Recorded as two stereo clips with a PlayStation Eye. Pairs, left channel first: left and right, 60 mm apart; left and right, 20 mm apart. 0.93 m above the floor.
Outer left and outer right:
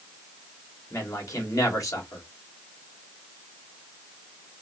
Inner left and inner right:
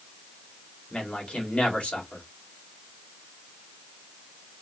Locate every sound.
0.9 s a man speaking: 65° left (ahead or behind), 2 m